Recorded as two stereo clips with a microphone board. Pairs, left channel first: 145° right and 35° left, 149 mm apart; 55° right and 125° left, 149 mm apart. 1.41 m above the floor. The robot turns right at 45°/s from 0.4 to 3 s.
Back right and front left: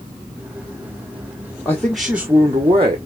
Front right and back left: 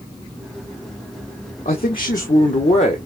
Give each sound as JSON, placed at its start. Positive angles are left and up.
{"t": 1.6, "sound": "a man speaking", "azimuth_deg": -70, "distance_m": 0.9}